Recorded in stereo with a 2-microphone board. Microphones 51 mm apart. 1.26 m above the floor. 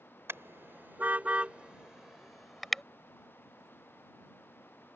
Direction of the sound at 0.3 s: 55° right (ahead or behind).